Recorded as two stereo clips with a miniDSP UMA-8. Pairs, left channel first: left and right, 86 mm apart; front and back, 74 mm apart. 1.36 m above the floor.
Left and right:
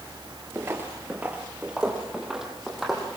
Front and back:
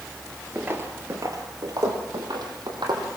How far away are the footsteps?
About 1.7 m.